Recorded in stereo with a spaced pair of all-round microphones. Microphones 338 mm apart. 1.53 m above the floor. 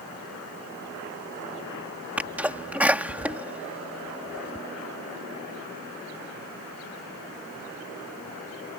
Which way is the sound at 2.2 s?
5° right (ahead or behind).